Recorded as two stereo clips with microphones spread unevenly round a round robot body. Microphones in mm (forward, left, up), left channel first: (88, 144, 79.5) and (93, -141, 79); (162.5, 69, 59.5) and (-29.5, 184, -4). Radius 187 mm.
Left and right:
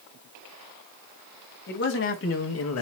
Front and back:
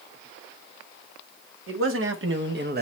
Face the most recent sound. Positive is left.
turn(degrees=120)